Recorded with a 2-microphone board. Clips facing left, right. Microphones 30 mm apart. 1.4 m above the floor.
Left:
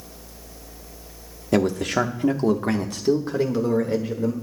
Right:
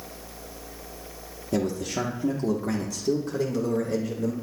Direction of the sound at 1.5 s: 85° left.